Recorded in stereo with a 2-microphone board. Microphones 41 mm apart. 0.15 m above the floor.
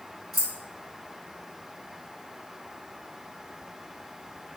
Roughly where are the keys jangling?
Centre.